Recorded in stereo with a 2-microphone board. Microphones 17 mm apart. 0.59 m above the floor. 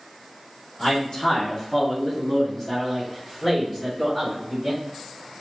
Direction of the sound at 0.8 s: 40° left (ahead or behind).